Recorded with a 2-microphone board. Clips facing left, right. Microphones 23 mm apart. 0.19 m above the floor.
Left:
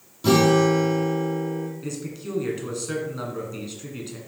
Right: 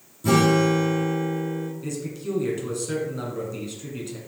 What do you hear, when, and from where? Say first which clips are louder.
0.2 s a guitar: left 2 dB; 45° left (ahead or behind), 2.0 m
1.8 s a man speaking: right 2 dB; 10° left (ahead or behind), 1.9 m